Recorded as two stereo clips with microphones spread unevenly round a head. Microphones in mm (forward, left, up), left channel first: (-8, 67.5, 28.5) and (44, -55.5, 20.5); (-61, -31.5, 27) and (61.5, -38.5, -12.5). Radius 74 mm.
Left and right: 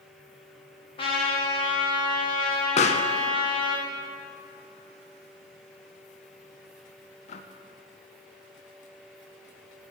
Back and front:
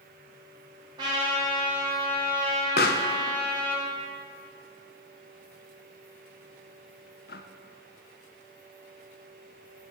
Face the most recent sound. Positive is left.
turn(degrees=155)